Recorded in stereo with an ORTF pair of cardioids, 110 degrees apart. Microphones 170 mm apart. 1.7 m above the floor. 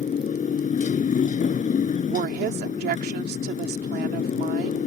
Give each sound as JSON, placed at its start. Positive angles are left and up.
{"t": 0.0, "sound": "a motorcycle", "azimuth_deg": 45}
{"t": 2.1, "sound": "a woman speaking", "azimuth_deg": -65}